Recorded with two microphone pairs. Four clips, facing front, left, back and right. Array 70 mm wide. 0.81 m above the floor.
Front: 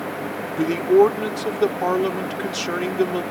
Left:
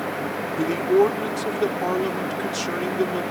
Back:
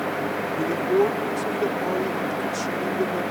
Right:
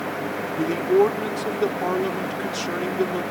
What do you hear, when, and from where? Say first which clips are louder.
0.6 s a man speaking: even, front 6 dB; 5° right